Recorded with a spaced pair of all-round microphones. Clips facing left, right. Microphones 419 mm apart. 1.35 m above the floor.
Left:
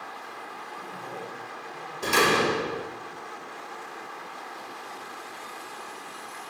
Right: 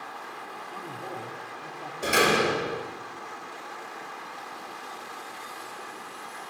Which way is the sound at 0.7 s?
60° right (ahead or behind).